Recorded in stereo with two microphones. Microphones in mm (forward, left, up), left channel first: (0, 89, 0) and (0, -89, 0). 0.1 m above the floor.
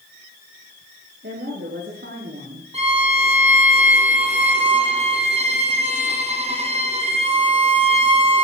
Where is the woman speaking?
80° right, 9 m; by 2.6 s 75° right (ahead or behind), 9 m.